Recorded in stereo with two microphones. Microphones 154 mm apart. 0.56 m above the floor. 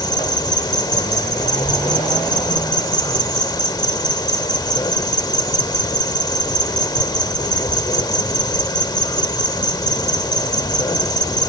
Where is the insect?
25° left (ahead or behind).